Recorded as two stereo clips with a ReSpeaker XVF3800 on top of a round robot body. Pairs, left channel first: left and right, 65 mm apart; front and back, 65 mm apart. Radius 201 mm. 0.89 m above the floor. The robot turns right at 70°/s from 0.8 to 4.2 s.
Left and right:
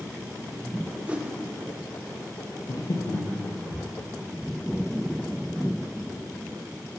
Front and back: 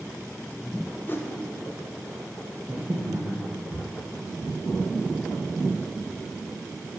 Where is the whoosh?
30° right, 1.0 m; by 1.3 s 15° right, 1.0 m.